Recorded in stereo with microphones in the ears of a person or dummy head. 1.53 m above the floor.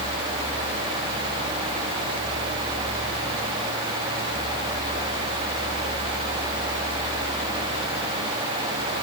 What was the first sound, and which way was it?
Only background noise.